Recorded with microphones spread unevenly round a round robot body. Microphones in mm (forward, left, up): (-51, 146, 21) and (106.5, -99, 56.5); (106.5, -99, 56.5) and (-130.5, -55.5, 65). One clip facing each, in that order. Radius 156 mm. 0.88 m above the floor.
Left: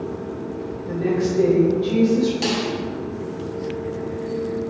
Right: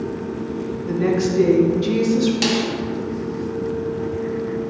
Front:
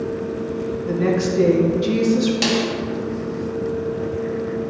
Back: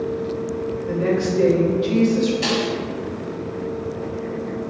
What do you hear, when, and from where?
0.9 s a woman speaking: 35° right, 1.6 m
2.4 s a snare drum: straight ahead, 1.4 m